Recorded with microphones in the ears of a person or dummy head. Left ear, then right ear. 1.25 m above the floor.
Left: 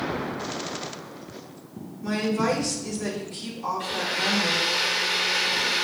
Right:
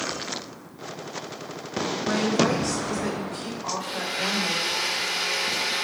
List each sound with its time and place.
2.0 s a woman speaking: 65° left (ahead or behind), 4.5 m
3.8 s a blender: 10° left (ahead or behind), 2.5 m